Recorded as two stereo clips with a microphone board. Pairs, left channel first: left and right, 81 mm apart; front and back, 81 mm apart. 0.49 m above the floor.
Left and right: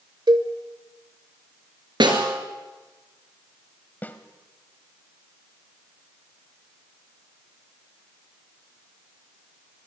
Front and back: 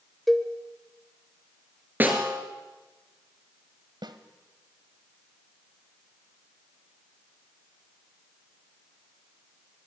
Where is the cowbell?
90° right, 1.3 m.